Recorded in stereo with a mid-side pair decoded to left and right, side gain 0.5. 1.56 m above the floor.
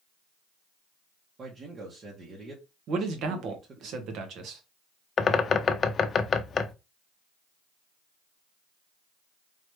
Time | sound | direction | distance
1.4 | a man speaking | 45° right | 1.6 m
2.9 | a man speaking | 70° right | 1.5 m
5.2 | a bird | 40° left | 0.6 m